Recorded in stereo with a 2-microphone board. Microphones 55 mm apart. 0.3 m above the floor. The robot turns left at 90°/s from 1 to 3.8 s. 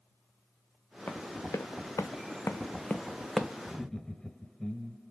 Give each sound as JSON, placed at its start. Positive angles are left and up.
{"t": 1.1, "sound": "running footsteps", "side_deg": 40, "distance_m": 1.7}
{"t": 3.6, "sound": "laughter", "side_deg": 20, "distance_m": 1.1}